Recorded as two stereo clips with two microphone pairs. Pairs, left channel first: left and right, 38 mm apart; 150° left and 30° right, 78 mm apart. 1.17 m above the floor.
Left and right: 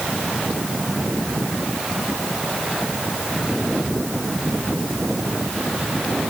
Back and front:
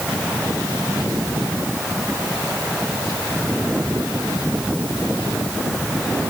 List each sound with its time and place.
Only background noise.